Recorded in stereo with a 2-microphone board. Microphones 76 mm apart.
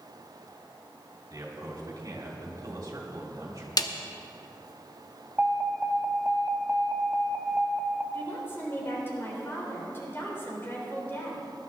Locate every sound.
1.3 s a man speaking: 50° right (ahead or behind), 3 m
3.8 s a snare drum: 50° left (ahead or behind), 0.7 m
5.4 s an alarm: 20° right (ahead or behind), 0.8 m
8.1 s a woman speaking: 30° left (ahead or behind), 3.5 m